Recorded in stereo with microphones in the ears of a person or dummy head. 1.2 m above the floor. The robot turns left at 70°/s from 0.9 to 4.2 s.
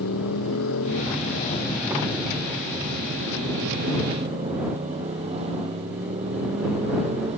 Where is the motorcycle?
80° left; by 7.4 s 150° right.